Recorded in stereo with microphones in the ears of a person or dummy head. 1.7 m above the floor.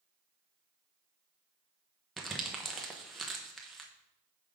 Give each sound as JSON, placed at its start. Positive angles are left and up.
{"t": 2.2, "sound": "crumpling", "side_deg": 0, "distance_m": 0.9}